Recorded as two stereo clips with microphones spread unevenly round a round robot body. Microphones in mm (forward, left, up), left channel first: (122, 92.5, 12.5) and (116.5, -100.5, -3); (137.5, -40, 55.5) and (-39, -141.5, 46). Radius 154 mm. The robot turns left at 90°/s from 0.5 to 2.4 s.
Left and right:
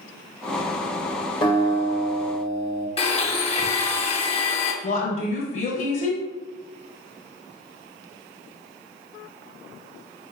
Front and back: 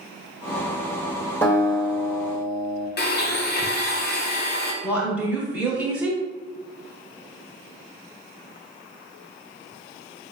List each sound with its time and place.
1.4 s a guitar: 100° left, 1.3 m; by 2.9 s 10° left, 1.3 m
3.0 s a blender: 35° left, 1.1 m
4.8 s a woman speaking: 135° left, 1.1 m